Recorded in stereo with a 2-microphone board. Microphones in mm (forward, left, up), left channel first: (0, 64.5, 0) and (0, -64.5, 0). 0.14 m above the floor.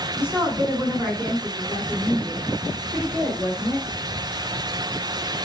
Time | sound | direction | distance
0.1 | a woman speaking | 10° right (ahead or behind) | 1.2 m